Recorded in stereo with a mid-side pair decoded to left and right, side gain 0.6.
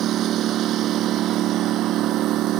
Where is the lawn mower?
55° right; by 2.6 s 60° right.